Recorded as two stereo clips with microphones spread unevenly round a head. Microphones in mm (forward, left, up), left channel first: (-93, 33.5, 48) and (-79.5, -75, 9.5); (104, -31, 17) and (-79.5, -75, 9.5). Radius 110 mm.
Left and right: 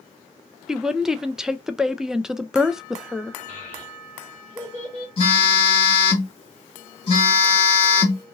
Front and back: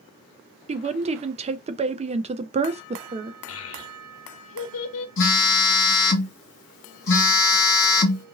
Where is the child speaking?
Straight ahead, 1.1 m.